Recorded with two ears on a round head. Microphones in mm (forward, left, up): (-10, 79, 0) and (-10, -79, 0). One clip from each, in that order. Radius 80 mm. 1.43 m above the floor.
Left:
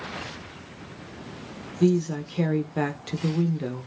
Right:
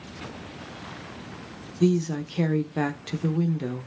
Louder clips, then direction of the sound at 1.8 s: Left 1 dB; centre (ahead or behind).